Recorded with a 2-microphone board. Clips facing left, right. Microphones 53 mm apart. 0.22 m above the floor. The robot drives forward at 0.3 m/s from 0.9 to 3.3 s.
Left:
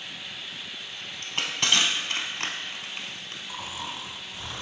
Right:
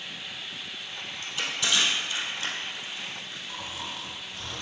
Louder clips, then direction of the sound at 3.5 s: Left 2 dB; 15° left (ahead or behind).